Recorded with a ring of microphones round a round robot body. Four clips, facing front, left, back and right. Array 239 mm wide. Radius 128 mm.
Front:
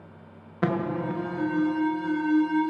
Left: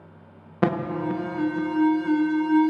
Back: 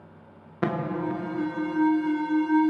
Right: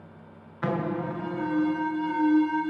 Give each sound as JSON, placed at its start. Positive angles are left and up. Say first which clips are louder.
{"t": 0.6, "sound": "an alarm", "louder": "left 4 dB, front 1 dB", "azimuth_deg": 95, "distance_m": 0.8}